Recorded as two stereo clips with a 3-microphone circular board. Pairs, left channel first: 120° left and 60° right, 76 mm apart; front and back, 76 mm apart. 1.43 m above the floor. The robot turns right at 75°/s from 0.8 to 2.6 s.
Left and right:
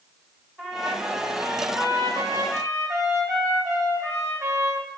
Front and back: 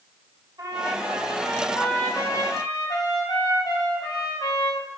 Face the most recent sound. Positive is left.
turn(degrees=-25)